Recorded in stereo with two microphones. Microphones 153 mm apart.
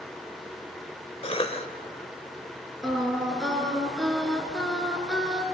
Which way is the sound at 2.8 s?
Centre (ahead or behind).